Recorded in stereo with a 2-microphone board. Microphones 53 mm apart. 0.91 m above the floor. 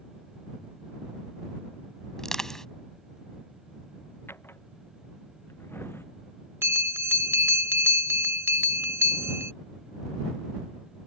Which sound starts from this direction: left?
A drawer, at 4.3 s.